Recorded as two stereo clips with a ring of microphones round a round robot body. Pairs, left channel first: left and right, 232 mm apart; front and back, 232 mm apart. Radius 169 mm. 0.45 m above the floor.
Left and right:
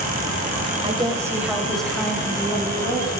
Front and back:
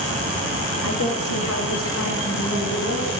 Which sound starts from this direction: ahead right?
A woman speaking, at 0.8 s.